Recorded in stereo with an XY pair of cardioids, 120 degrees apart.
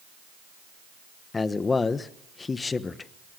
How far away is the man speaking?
About 1.2 m.